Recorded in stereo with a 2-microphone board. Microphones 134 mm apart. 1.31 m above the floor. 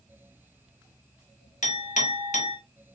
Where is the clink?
65° left (ahead or behind), 1.0 m.